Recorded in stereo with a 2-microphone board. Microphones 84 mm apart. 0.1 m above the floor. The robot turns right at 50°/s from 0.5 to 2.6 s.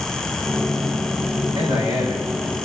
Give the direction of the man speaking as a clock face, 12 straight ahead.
2 o'clock.